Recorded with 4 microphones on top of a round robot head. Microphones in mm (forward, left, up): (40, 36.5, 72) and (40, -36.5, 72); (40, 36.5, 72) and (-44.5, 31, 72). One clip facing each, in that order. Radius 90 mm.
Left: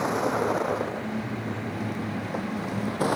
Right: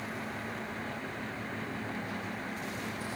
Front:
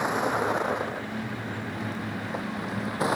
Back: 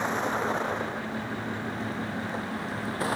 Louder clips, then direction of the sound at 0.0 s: Left 14 dB, front 2 dB; 80° left.